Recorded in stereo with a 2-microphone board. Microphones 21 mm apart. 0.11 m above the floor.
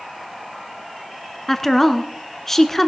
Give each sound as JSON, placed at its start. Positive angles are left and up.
{"t": 1.5, "sound": "a woman speaking", "side_deg": 20, "distance_m": 1.1}